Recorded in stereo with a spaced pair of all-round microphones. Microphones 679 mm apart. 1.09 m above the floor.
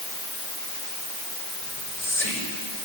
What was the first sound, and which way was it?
Whispering, 80° left.